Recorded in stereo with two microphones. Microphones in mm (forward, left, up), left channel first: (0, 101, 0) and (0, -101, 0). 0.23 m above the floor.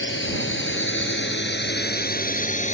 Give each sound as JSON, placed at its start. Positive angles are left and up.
{"t": 0.0, "sound": "a drone", "side_deg": 75}